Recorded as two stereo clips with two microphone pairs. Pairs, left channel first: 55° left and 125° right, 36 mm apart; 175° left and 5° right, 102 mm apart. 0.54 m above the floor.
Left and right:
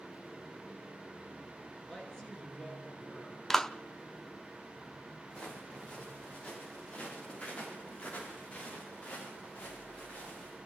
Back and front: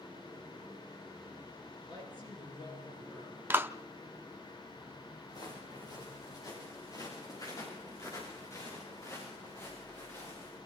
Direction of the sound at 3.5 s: Straight ahead.